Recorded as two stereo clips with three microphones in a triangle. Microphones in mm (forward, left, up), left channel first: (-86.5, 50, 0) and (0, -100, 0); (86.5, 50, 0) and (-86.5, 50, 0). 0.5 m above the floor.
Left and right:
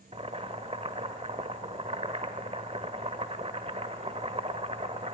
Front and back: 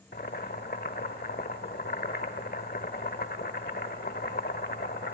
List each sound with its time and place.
0.1 s boiling: 10° right, 1.0 m